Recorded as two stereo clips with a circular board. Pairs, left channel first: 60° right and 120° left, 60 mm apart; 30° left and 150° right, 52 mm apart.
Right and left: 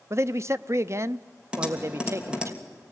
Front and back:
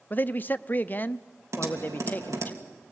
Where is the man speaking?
80° left, 0.7 m.